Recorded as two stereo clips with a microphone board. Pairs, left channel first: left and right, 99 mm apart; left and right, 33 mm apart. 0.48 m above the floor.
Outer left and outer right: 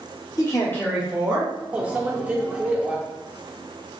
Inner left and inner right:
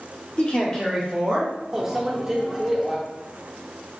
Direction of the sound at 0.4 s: 35° left (ahead or behind).